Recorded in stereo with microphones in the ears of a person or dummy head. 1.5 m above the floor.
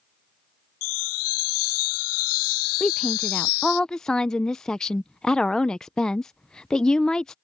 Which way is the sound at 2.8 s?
5° left (ahead or behind).